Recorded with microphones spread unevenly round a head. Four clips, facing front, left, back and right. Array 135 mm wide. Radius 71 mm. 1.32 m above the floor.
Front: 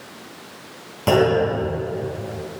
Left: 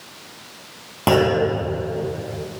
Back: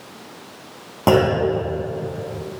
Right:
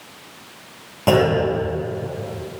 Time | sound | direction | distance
1.1 | a clunk | 160° left | 3.5 m